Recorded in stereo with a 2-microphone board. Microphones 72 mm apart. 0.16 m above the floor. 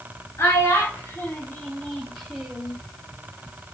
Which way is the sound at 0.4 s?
35° left (ahead or behind).